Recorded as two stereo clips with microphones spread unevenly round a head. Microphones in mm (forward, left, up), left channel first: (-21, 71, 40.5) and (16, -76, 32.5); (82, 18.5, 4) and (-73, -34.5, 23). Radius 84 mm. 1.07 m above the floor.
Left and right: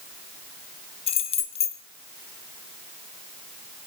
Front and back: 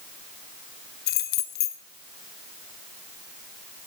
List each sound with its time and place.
1.1 s keys jangling: 50° left, 2 m